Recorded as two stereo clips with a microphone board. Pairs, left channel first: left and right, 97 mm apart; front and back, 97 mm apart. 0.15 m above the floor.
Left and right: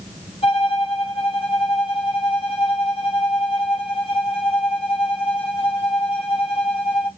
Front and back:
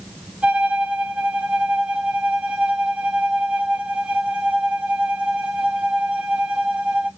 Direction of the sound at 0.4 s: 100° left.